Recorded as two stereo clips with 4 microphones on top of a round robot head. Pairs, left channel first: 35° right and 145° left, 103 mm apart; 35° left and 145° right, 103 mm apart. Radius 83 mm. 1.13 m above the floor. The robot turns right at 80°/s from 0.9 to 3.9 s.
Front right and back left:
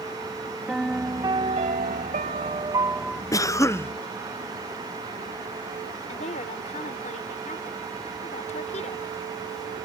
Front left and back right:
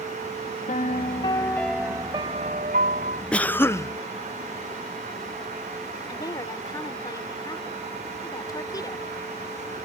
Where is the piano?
60° left; by 3.2 s 115° right.